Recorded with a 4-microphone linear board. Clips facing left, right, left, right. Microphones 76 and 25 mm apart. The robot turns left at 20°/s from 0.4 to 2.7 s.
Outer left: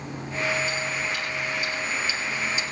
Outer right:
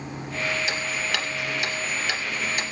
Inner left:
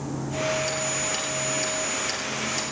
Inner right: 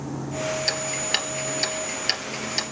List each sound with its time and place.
0.7 s ticking: 80° right, 3 m; by 2.6 s 55° right (ahead or behind), 3 m